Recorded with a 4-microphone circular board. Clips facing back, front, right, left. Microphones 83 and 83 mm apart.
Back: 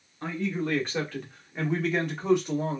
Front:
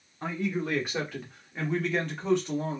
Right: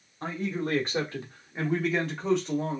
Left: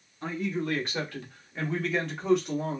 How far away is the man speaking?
About 1.3 m.